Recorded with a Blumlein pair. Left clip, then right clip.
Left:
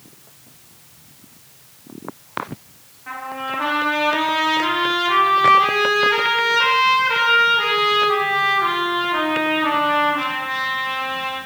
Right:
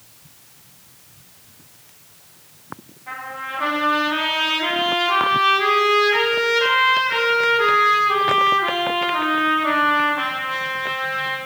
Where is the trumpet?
65° left, 3.5 m.